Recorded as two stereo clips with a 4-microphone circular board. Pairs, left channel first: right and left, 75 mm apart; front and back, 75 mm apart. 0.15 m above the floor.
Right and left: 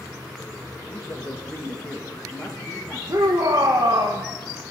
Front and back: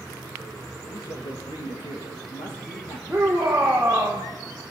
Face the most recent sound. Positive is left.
turn(degrees=105)